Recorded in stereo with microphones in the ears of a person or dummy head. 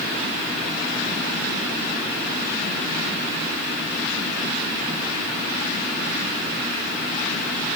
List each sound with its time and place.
Only background noise.